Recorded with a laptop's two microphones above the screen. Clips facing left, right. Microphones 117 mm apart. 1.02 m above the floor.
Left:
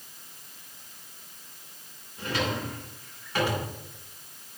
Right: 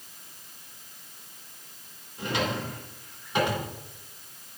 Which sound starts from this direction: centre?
A drawer, at 2.2 s.